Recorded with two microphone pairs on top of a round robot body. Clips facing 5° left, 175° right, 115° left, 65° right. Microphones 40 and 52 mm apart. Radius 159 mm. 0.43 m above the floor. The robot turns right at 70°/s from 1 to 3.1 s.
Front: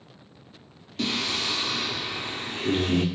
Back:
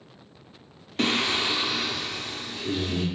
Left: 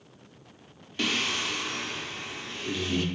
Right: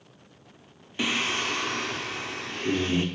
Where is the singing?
145° right, 0.8 m; by 3.1 s straight ahead, 0.8 m.